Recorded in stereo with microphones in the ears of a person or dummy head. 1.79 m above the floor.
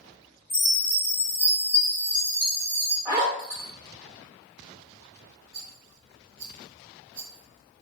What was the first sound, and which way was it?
A chime, 5° left (ahead or behind).